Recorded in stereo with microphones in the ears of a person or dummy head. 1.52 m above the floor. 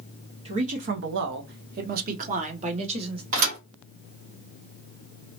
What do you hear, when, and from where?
0.5 s a man speaking: 30° right (ahead or behind), 0.5 m
3.3 s a thud: 40° right (ahead or behind), 1.1 m